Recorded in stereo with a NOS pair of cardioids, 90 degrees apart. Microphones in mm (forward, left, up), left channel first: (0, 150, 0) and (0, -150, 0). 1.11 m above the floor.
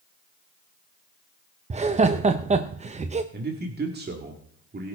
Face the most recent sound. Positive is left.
turn(degrees=-35)